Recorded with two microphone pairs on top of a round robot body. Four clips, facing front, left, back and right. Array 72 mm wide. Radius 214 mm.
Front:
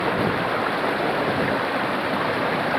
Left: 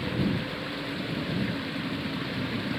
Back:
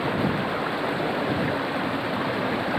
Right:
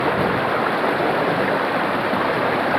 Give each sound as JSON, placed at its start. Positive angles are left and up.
{"t": 0.0, "sound": "running water", "azimuth_deg": -75}